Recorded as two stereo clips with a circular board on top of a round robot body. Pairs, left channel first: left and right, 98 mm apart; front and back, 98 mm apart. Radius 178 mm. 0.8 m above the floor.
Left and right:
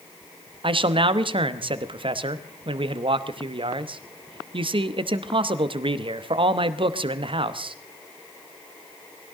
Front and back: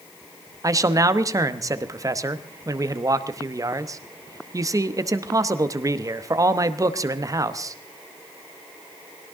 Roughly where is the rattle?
I don't hear a rattle.